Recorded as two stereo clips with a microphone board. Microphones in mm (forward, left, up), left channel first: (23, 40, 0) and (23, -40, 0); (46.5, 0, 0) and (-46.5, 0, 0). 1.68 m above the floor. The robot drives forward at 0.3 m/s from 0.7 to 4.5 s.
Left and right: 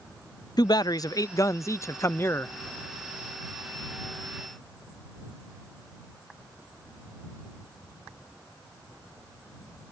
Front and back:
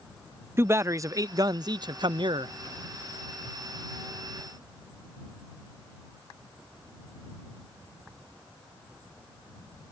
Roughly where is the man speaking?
Behind left.